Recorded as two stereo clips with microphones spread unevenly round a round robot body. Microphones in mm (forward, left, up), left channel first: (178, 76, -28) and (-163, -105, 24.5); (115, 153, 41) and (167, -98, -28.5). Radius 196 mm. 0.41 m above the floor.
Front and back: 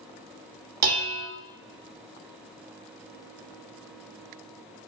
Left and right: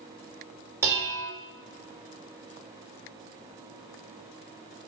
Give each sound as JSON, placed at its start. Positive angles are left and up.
{"t": 0.8, "sound": "dishes clattering", "azimuth_deg": -135, "distance_m": 0.8}